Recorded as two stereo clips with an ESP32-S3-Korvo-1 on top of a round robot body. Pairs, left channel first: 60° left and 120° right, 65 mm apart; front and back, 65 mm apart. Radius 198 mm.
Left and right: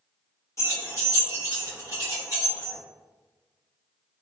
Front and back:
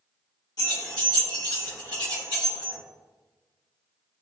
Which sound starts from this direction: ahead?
Keys jangling, at 0.6 s.